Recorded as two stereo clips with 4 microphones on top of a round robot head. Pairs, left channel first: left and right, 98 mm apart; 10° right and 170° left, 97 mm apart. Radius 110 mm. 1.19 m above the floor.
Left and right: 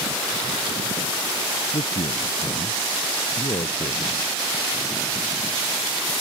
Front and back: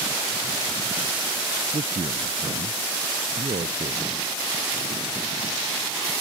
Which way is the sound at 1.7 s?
130° left.